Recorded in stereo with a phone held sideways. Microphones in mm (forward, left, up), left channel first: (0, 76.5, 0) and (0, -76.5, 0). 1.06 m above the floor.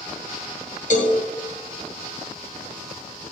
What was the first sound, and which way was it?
A cowbell, 55° left (ahead or behind).